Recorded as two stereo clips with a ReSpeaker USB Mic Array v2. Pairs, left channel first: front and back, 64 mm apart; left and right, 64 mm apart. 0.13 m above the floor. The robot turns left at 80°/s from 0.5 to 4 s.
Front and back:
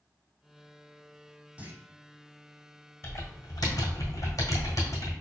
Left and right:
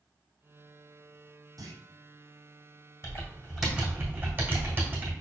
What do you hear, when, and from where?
1.6 s a clunk: 110° right, 1.0 m; by 1.8 s 125° right, 1.0 m
3.0 s typing on a keyboard: 45° left, 1.6 m; by 5.1 s 30° right, 1.6 m